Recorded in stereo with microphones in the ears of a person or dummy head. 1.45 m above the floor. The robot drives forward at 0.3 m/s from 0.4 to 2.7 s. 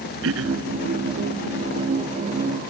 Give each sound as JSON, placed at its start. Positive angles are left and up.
{"t": 0.2, "sound": "throat clearing", "side_deg": -85}